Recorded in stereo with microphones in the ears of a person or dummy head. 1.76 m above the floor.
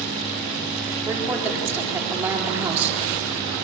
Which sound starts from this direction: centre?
A woman speaking, at 1.1 s.